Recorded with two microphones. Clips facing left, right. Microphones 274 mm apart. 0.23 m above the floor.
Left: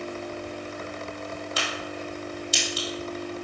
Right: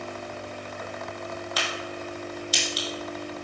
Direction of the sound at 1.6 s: 30° left (ahead or behind).